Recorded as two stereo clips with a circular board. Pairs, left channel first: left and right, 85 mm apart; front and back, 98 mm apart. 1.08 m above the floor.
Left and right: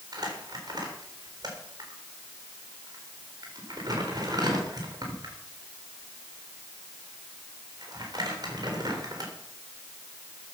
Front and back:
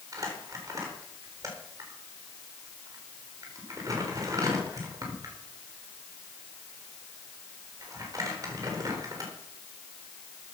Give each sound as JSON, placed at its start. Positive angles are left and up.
{"t": 0.1, "sound": "crumpling", "azimuth_deg": -125, "distance_m": 4.0}